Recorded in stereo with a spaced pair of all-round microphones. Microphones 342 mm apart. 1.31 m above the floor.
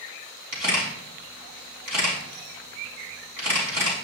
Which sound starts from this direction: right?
A camera shutter, at 0.5 s.